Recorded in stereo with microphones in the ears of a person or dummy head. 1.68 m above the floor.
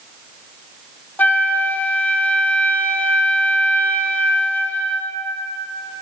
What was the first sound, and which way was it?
A flute, 10° left (ahead or behind).